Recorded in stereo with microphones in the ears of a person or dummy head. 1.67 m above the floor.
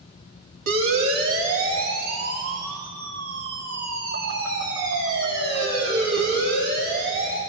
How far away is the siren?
About 4.5 m.